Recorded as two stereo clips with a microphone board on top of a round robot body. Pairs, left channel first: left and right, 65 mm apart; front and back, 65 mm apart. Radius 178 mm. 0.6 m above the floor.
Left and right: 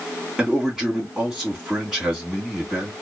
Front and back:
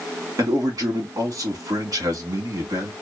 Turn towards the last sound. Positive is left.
turn(degrees=-175)